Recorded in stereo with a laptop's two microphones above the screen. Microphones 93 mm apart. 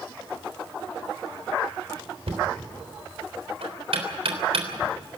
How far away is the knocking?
About 3.5 m.